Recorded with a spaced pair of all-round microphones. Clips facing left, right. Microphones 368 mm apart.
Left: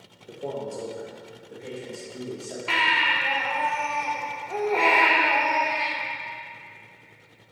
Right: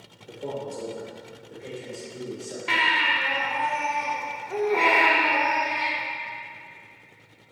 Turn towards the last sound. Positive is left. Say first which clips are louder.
# even
turn(degrees=-30)  # may be behind; listen again after turning